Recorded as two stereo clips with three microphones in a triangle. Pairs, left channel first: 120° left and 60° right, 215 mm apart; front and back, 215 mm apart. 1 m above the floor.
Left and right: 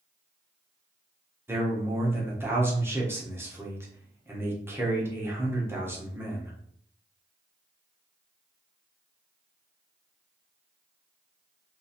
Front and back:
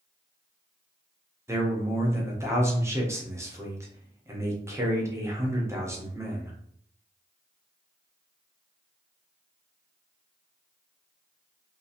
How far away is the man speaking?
About 0.7 m.